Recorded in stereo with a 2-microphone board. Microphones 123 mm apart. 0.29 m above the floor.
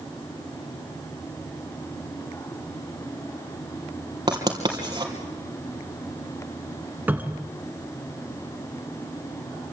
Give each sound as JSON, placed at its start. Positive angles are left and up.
{"t": 4.3, "sound": "writing", "side_deg": -35, "distance_m": 3.0}
{"t": 7.1, "sound": "a cupboard door", "side_deg": -15, "distance_m": 1.8}